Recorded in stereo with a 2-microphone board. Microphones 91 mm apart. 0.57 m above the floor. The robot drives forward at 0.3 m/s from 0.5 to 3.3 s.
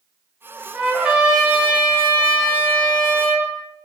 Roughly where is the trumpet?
Centre.